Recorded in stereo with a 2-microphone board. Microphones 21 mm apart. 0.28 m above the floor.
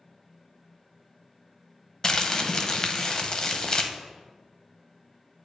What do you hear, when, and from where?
2.0 s crumpling: 35° left (ahead or behind), 0.7 m